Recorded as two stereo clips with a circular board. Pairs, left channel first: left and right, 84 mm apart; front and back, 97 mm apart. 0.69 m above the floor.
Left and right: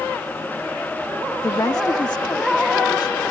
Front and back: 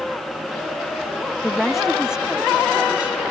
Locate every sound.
1.4 s a woman speaking: 85° left; by 3.3 s 105° left